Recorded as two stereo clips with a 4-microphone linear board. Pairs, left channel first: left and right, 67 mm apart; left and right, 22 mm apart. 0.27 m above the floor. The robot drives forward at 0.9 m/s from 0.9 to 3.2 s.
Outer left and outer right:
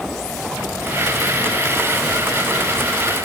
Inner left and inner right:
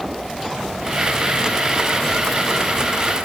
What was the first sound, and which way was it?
Only background noise.